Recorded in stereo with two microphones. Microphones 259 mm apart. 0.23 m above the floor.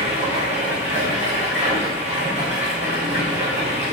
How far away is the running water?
About 1.9 m.